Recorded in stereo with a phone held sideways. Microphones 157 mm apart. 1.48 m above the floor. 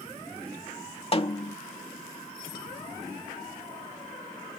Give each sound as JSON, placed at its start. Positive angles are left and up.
{"t": 1.1, "sound": "a snare drum", "side_deg": 40}